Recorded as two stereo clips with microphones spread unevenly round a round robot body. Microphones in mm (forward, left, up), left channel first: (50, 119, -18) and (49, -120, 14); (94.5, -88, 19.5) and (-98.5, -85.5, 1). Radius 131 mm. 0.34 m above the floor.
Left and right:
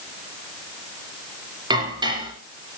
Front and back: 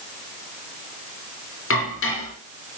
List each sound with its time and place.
1.7 s dishes clattering: 15° right, 4.5 m